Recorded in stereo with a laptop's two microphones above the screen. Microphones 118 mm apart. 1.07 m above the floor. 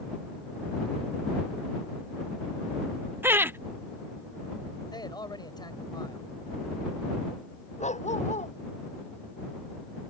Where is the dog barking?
80° left.